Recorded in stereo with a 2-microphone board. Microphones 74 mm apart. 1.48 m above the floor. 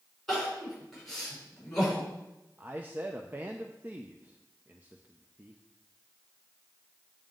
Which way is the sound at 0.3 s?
5° left (ahead or behind).